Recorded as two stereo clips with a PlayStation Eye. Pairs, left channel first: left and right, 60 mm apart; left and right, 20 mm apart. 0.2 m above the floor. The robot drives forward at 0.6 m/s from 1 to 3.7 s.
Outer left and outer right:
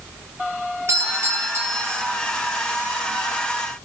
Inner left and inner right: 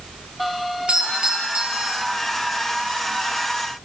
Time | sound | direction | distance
0.9 | a doorbell | 45° right (ahead or behind) | 4.5 m